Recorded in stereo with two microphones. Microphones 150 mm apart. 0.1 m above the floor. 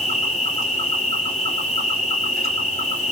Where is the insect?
45° left (ahead or behind), 2.5 m.